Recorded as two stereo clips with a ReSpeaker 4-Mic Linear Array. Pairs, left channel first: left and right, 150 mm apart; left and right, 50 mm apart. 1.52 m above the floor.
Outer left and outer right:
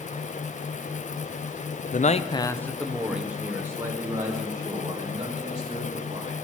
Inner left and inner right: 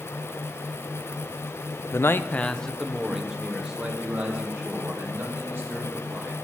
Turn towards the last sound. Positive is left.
turn(degrees=-30)  # may be behind; listen again after turning